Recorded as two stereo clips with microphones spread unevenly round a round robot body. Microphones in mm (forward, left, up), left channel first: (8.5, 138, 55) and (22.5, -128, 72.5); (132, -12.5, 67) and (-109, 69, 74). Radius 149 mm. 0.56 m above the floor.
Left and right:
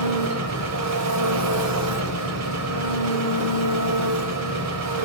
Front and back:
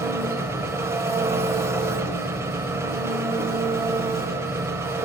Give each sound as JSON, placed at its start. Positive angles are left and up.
{"t": 0.0, "sound": "an engine running", "azimuth_deg": -120, "distance_m": 1.6}